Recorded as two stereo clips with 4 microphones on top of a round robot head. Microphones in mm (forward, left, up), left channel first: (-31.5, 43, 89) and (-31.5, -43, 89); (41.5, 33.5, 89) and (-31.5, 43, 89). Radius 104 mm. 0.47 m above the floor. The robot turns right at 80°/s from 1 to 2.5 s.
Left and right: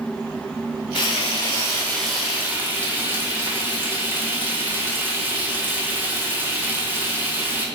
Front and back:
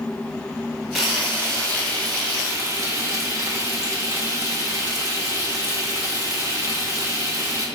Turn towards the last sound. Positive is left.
turn(degrees=-150)